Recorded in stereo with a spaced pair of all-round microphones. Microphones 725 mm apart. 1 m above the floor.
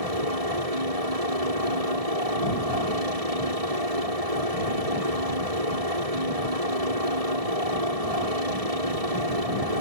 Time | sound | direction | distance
0.0 | a helicopter | 55° right (ahead or behind) | ?